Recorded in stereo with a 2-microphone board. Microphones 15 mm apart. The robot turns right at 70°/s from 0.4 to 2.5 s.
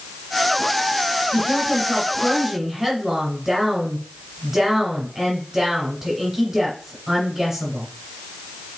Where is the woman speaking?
130° left, 1.7 m; by 7.9 s 145° right, 1.7 m.